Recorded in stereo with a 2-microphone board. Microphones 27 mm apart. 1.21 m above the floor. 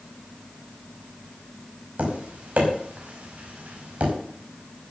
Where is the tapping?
60° right (ahead or behind), 5 m.